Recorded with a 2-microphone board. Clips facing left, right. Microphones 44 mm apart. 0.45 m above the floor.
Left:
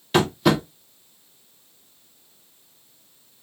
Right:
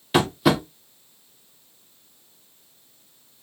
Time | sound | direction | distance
0.1 | tapping | 5° right (ahead or behind) | 0.7 m